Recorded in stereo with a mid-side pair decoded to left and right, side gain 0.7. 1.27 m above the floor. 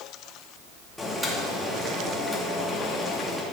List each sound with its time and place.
1.0 s boiling: 5° left, 2 m